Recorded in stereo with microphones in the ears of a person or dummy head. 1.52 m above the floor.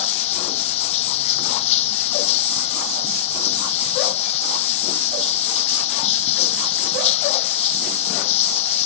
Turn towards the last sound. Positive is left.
turn(degrees=40)  # may be behind; listen again after turning